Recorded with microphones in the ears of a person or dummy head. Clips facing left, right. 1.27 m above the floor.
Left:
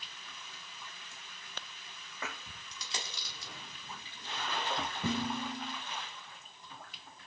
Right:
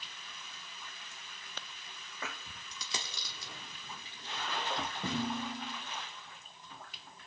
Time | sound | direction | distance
2.7 | a dropped coin | 70° right (ahead or behind) | 1.6 m
5.0 | dishes clattering | centre (ahead or behind) | 4 m